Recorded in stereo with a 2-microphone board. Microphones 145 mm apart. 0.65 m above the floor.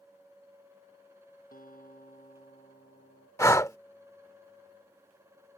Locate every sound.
1.5 s a guitar: 85° left
3.4 s breathing: 20° left (ahead or behind)